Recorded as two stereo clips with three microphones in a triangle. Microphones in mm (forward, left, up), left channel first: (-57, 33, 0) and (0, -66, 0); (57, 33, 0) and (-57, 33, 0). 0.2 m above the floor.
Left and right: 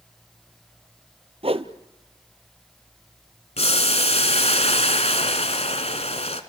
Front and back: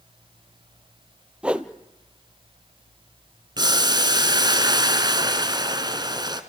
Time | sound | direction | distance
1.4 | a whoosh | 100° right | 0.9 m
3.6 | boiling | 130° left | 1.5 m